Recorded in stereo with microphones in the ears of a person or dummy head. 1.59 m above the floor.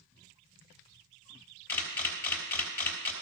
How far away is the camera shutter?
About 3 m.